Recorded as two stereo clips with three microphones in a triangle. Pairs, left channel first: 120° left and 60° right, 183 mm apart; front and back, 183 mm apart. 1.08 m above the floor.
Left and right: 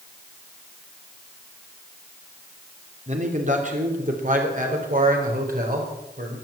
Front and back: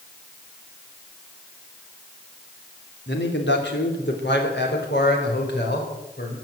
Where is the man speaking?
10° right, 3 m; by 6.3 s 20° right, 5 m.